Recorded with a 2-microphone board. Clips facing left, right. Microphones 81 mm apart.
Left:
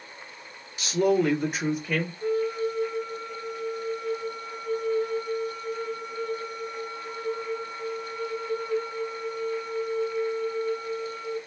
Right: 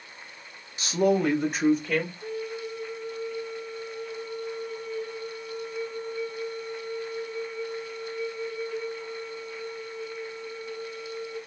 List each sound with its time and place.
0.8 s a woman speaking: 25° right (ahead or behind), 1.2 m; by 2.1 s 15° left (ahead or behind), 1.9 m
2.2 s a flute: 75° left (ahead or behind), 0.9 m